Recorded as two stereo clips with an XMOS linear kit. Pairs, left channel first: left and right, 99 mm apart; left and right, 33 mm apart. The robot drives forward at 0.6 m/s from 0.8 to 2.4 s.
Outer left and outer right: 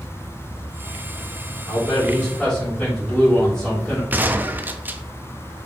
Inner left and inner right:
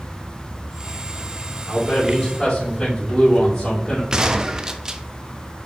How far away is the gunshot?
About 0.7 m.